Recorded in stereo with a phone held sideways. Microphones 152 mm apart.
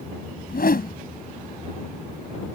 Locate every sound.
0.5 s a whoosh: 80° left